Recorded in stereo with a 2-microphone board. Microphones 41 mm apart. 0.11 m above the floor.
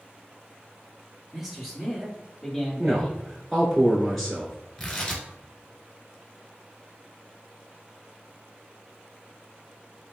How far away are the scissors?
No scissors in this recording.